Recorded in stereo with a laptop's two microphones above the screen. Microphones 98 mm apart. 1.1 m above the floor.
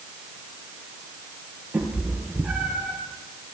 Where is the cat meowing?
15° right (ahead or behind), 9.5 m; by 3.0 s 5° right (ahead or behind), 9.5 m.